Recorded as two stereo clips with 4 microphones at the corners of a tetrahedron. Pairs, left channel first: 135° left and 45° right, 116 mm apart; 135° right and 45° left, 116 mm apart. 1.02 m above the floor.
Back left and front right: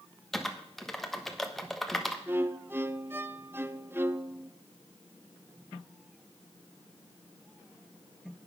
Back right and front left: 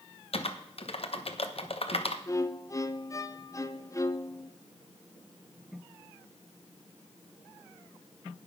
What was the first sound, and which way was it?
Typing on a keyboard, 140° right.